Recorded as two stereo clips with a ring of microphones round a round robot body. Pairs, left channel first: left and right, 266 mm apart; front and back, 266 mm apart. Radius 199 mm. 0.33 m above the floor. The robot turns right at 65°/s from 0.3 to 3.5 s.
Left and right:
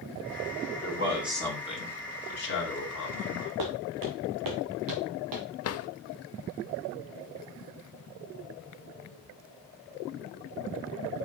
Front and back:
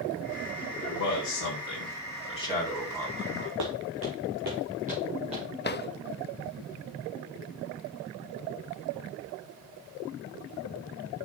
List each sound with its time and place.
0.8 s a man speaking: 35° right, 3.5 m; by 3.5 s 140° left, 3.5 m
3.6 s footsteps: 130° right, 1.3 m; by 5.5 s 105° right, 3 m
5.6 s a drawer: 55° left, 0.7 m